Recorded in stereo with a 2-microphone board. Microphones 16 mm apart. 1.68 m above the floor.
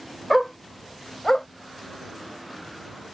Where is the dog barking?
5° left (ahead or behind); by 1.5 s 35° left (ahead or behind).